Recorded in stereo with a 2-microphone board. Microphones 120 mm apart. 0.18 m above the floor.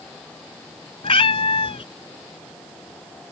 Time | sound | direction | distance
1.0 | a cat meowing | 55° left (ahead or behind) | ?